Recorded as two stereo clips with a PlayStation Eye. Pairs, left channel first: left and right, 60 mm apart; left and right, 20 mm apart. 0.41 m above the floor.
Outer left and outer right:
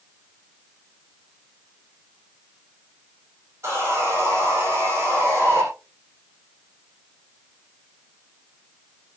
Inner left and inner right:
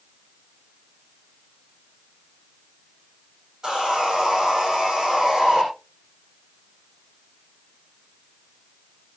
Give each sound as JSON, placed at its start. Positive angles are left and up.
{"t": 3.6, "sound": "sawing", "side_deg": -40, "distance_m": 8.0}